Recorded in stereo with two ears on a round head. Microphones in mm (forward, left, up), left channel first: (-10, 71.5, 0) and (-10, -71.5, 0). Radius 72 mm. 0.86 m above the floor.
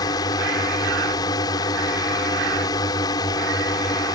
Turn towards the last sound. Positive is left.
turn(degrees=25)  # may be behind; listen again after turning